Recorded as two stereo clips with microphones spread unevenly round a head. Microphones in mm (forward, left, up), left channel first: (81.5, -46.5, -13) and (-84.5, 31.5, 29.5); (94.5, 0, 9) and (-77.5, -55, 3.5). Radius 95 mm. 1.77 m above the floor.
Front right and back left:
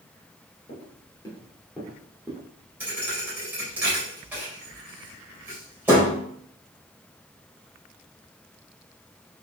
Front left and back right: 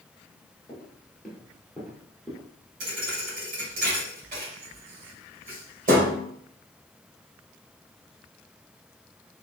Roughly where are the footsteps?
Ahead right.